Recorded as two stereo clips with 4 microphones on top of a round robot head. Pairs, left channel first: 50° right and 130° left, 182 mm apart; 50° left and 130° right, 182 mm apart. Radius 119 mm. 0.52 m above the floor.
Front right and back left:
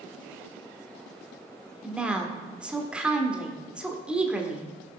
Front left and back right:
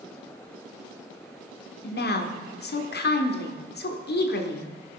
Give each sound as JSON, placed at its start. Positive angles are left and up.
{"t": 1.8, "sound": "a woman speaking", "azimuth_deg": 45, "distance_m": 1.5}